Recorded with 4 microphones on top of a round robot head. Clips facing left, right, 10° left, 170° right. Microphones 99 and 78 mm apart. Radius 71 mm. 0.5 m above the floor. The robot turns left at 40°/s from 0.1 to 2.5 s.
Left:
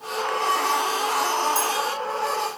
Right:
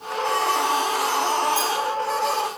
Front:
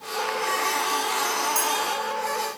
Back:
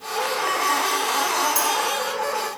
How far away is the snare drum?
No snare drum in this recording.